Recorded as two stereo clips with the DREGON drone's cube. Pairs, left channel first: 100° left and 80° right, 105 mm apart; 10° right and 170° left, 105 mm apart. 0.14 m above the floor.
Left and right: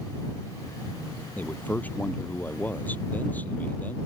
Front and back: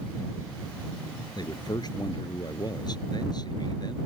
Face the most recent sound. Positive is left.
turn(degrees=30)